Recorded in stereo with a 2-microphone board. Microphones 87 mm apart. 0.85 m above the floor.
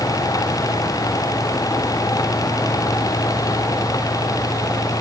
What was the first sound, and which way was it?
Only background noise.